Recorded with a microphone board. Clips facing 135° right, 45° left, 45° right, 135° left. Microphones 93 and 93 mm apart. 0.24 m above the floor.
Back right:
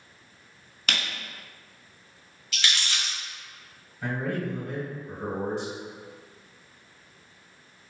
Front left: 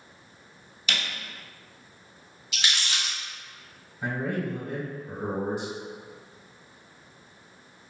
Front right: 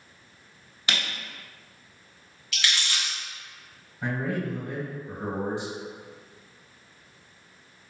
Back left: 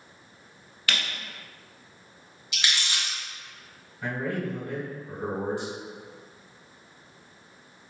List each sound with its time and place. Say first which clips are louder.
0.9 s a camera shutter: back right 1 dB, even; 110° right, 0.8 m
2.5 s crumpling: even, even; 100° left, 1.5 m
4.0 s a man speaking: even, front right 1 dB; 15° right, 1.7 m